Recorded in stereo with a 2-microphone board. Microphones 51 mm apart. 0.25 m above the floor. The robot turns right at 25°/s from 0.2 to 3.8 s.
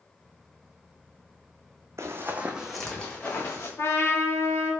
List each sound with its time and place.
2.0 s running footsteps: 60° right (ahead or behind), 0.6 m; by 3.7 s 50° left (ahead or behind), 1.1 m
3.8 s a trumpet: 55° left (ahead or behind), 0.6 m